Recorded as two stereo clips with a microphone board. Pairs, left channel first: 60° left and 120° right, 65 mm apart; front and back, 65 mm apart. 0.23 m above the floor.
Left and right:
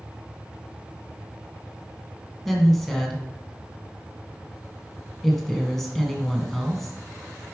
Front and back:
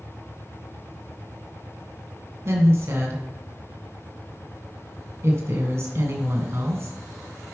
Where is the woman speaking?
145° left, 1.8 m.